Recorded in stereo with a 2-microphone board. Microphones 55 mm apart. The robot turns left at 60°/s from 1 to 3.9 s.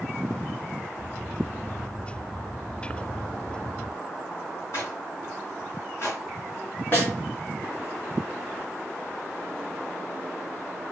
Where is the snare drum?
40° left (ahead or behind), 2 m.